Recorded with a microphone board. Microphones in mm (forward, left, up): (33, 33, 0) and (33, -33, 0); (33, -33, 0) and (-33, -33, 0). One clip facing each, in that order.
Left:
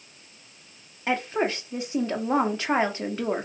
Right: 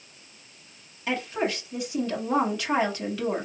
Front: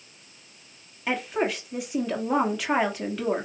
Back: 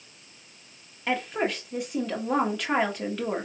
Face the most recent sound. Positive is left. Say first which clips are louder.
# left 2 dB, front 1 dB
turn(degrees=85)